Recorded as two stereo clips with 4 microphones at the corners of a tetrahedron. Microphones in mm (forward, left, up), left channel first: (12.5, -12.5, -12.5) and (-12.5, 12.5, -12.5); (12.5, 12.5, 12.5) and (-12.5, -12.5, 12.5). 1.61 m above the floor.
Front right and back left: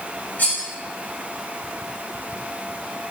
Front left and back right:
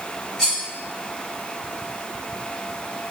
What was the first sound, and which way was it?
Cutlery clinking, 30° right.